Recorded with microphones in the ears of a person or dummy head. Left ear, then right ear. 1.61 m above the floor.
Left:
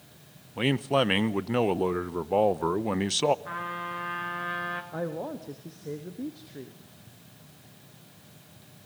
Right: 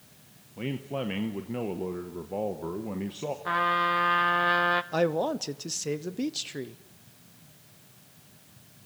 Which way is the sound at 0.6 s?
60° left (ahead or behind).